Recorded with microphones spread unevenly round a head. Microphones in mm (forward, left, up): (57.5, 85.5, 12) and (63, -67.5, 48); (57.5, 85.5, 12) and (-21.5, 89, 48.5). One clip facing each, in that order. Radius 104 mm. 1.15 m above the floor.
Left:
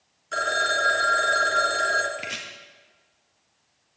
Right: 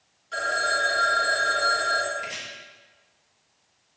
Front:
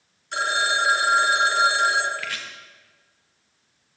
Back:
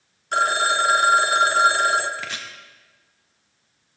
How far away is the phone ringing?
About 0.7 m.